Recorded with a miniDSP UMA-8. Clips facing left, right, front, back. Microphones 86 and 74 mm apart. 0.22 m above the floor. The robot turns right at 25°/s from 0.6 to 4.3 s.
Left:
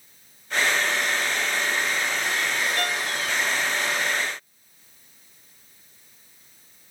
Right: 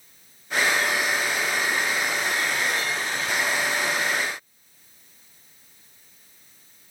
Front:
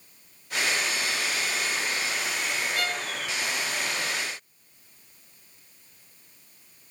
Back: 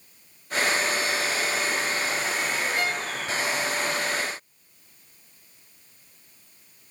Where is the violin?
115° left, 3 m; by 3.1 s 125° left, 3 m.